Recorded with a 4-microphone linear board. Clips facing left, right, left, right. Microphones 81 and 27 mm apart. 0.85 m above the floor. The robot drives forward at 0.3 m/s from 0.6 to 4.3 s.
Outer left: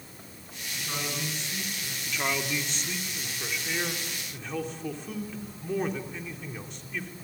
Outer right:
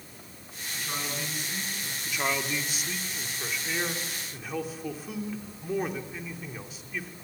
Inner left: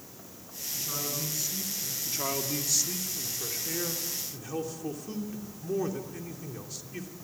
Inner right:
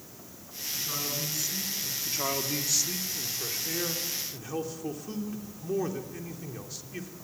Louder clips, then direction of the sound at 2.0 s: Even, inner right 1 dB; 10° right (ahead or behind).